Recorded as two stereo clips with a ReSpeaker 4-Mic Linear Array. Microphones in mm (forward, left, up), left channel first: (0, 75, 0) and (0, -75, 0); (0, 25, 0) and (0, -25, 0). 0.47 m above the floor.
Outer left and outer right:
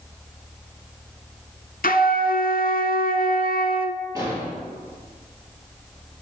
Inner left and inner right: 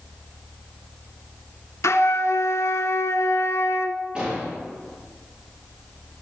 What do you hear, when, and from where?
1.8 s a flute: 75° left (ahead or behind), 0.9 m
4.2 s an explosion: 20° right (ahead or behind), 4.5 m